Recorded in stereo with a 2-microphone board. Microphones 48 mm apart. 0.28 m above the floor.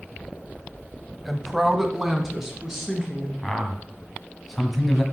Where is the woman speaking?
5° right (ahead or behind), 1.1 m; by 3.3 s 15° right (ahead or behind), 3 m.